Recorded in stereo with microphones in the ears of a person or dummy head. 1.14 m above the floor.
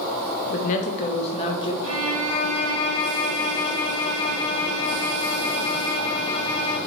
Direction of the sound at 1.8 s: 85° right.